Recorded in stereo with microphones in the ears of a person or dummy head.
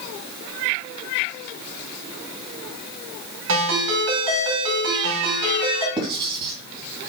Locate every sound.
3.5 s a ringtone: 75° right (ahead or behind), 5.5 m
6.0 s writing: 30° right (ahead or behind), 2.5 m